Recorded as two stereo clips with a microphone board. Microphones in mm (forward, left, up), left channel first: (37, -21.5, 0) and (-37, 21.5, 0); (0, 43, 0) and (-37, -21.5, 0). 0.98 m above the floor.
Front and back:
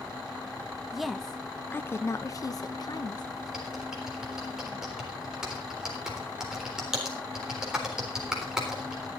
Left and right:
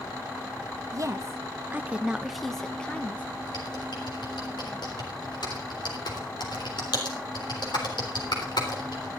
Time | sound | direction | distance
0.9 | a woman speaking | 125° right | 0.9 m
3.5 | typing on a keyboard | 70° left | 3.5 m